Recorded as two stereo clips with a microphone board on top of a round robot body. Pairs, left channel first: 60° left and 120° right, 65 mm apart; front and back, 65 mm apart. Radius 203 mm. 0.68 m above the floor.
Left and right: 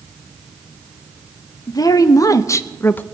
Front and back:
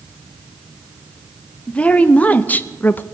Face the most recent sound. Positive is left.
turn(degrees=25)